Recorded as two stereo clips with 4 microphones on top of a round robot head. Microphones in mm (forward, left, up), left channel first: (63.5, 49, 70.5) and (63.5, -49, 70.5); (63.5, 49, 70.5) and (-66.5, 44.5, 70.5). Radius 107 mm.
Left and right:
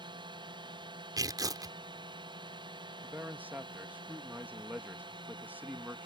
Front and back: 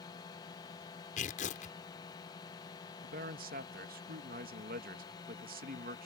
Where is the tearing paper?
40° right.